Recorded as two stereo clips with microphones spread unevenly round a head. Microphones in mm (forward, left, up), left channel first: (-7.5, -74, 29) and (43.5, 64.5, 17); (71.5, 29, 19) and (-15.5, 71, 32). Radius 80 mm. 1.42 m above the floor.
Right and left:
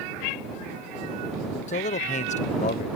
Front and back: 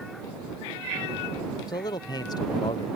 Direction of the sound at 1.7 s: 70° right.